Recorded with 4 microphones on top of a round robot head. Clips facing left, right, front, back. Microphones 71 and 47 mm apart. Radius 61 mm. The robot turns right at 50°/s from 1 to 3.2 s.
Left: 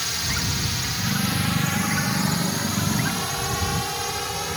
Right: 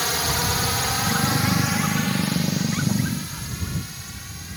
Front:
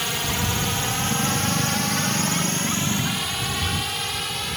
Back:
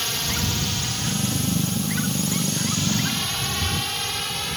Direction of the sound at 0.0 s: 75° right.